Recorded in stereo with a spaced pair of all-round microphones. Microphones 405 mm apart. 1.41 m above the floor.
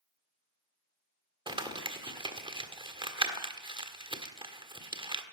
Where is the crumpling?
10° right (ahead or behind), 1.4 m.